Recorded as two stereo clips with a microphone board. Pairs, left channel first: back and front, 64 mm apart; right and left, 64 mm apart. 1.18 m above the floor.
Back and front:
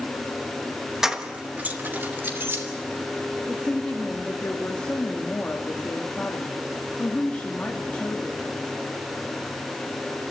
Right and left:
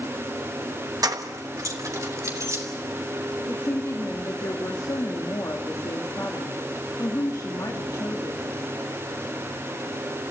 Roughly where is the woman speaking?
Right.